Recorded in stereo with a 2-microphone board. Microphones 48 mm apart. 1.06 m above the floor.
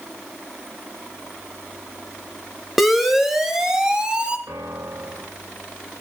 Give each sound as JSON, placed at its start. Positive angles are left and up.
{"t": 2.8, "sound": "a siren", "side_deg": 0, "distance_m": 3.0}
{"t": 4.5, "sound": "a piano", "side_deg": -80, "distance_m": 1.9}